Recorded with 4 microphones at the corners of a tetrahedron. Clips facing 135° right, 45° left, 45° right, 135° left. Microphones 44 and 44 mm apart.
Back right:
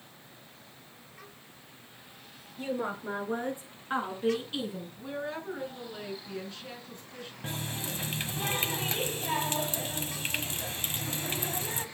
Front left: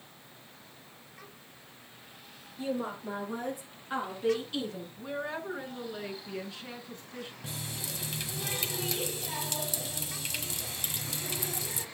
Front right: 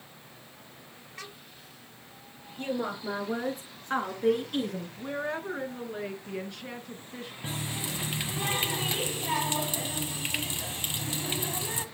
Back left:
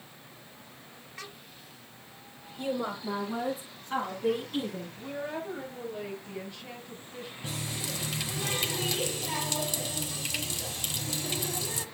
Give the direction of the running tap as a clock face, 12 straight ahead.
3 o'clock.